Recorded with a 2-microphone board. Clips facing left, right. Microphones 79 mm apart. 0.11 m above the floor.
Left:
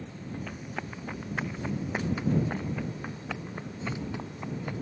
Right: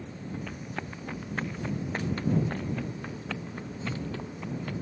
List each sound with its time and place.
0.5 s running footsteps: 5° left (ahead or behind); by 4.7 s 15° left (ahead or behind)